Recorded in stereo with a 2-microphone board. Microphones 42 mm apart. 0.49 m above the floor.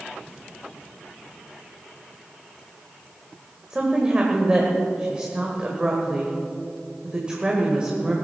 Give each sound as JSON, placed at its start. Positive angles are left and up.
{"t": 3.7, "sound": "a woman speaking", "side_deg": -20, "distance_m": 1.9}